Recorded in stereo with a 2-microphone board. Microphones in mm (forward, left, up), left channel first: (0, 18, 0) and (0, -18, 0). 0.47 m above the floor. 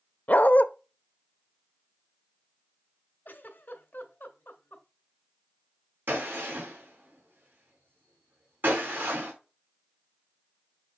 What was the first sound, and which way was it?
A dog barking, 50° left (ahead or behind).